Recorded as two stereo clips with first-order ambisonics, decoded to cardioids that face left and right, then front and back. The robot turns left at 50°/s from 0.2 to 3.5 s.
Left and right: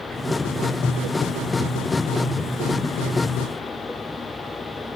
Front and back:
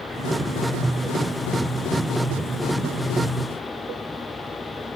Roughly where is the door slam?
I don't hear a door slam.